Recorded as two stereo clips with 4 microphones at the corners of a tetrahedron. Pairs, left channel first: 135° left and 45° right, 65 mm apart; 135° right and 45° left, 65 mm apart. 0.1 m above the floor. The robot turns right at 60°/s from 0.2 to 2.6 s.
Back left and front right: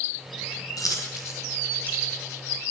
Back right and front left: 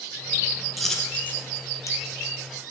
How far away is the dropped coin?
About 1.6 m.